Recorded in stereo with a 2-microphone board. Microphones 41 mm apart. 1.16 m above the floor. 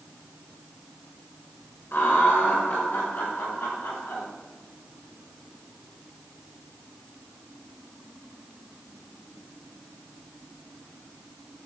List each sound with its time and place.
1.9 s laughter: 60° left (ahead or behind), 1.4 m; by 4.2 s 75° left (ahead or behind), 3 m